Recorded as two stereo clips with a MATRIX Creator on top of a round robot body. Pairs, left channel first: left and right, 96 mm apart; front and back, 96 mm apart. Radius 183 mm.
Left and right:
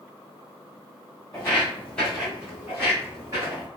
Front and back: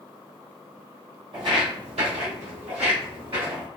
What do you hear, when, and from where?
1.3 s footsteps: 150° left, 1.1 m; by 3.7 s 145° right, 1.8 m